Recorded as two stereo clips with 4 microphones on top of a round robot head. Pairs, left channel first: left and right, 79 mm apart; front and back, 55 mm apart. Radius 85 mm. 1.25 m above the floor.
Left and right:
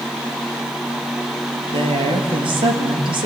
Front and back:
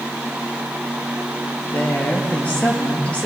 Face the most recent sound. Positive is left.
turn(degrees=-75)